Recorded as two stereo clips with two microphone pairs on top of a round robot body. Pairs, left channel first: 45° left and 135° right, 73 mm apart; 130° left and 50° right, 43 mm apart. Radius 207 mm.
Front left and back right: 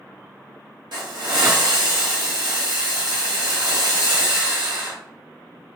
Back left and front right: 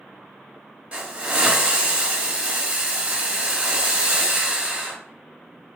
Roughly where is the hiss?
Behind right.